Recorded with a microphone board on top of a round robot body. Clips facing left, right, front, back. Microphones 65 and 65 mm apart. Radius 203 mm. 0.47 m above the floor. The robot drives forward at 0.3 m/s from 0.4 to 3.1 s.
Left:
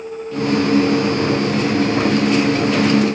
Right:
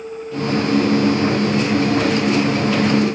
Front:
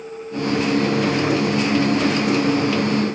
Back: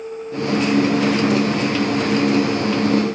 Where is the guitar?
I don't hear a guitar.